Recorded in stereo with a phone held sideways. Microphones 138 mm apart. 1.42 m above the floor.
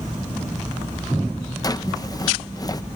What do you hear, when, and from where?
1.6 s a drawer: 25° left (ahead or behind)